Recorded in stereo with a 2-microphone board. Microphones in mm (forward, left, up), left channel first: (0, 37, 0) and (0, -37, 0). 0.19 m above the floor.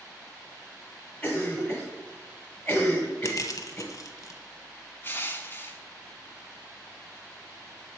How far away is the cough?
About 1.4 m.